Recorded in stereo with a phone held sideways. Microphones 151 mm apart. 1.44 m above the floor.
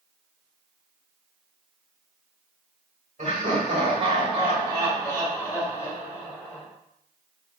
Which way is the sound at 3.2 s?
55° right (ahead or behind).